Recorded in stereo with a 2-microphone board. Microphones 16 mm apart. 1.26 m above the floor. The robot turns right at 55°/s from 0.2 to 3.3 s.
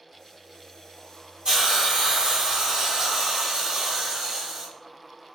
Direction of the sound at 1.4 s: 130° right.